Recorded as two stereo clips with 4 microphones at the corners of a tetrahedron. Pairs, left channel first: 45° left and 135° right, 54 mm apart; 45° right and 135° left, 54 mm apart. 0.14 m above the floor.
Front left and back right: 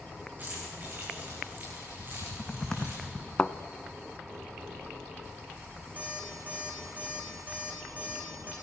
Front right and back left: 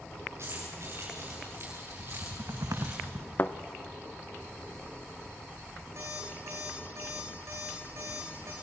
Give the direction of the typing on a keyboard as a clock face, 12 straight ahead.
8 o'clock.